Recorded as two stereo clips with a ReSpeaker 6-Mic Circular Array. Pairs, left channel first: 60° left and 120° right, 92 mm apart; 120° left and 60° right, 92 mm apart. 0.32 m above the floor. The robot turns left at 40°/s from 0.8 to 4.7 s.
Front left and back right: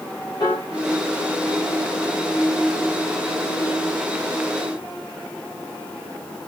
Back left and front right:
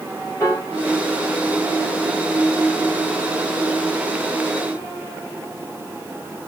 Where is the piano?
70° left, 2.5 m.